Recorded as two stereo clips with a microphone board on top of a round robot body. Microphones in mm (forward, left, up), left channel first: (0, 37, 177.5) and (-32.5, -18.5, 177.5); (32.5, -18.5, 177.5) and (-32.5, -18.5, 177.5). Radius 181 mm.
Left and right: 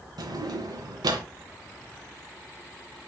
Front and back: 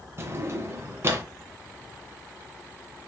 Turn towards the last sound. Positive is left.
turn(degrees=-130)